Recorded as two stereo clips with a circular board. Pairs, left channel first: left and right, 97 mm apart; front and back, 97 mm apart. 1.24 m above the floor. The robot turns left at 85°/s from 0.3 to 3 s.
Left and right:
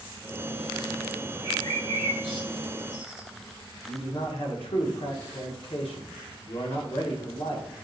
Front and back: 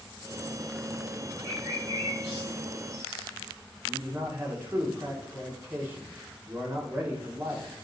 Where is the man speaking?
110° left, 0.8 m.